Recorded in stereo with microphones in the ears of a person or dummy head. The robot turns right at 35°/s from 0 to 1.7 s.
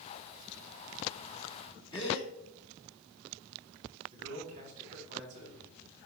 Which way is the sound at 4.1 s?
40° right (ahead or behind).